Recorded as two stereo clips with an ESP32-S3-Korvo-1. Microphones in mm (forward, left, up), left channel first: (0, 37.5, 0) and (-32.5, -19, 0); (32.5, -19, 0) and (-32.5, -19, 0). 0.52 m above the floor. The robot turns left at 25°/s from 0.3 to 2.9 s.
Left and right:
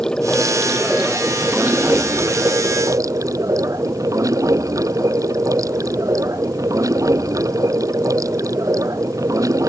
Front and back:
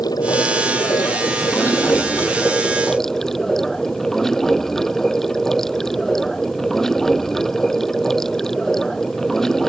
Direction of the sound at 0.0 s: 20° right.